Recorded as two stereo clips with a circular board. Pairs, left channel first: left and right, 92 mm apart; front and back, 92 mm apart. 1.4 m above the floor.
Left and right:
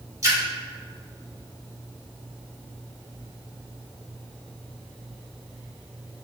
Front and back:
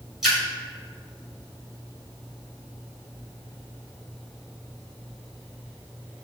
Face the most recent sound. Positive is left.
turn(degrees=-100)